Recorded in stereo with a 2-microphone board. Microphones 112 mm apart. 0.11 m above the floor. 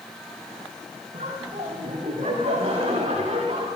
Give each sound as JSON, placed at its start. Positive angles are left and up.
{"t": 1.1, "sound": "laughter", "side_deg": -80, "distance_m": 9.5}